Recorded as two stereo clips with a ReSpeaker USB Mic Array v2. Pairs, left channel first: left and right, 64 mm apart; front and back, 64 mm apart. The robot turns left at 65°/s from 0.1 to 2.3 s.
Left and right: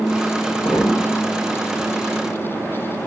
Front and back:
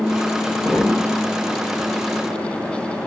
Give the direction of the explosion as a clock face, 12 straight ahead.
9 o'clock.